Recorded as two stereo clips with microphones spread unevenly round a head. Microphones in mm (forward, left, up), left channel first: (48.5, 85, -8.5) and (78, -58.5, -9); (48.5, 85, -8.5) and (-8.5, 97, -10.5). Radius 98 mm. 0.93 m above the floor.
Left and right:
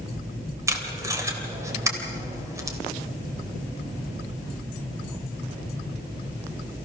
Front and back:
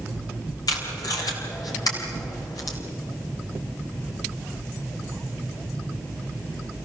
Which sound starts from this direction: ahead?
Tape being pulled, at 0.7 s.